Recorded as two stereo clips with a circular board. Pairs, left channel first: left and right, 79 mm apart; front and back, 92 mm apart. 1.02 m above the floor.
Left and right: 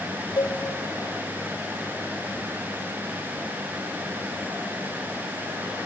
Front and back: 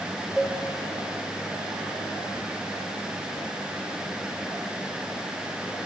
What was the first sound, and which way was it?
A cowbell, 95° left.